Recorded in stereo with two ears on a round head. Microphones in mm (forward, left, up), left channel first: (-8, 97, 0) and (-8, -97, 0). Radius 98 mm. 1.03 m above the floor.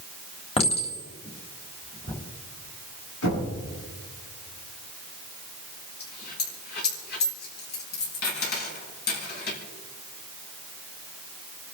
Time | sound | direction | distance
0.6 | a clink | 30° left (ahead or behind) | 3.5 m
3.2 | knocking | 70° left (ahead or behind) | 9.5 m
6.0 | a dropped coin | 50° left (ahead or behind) | 6 m